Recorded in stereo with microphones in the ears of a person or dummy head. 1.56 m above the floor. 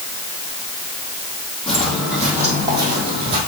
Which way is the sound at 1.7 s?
5° left (ahead or behind).